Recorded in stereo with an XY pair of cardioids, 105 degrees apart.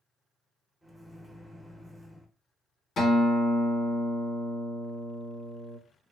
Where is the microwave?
Straight ahead, 0.8 m.